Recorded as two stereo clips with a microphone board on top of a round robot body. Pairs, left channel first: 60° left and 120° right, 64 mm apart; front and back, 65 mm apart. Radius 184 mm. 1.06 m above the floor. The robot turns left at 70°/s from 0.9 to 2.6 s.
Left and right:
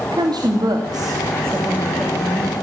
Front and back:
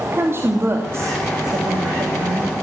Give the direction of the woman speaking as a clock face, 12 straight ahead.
4 o'clock.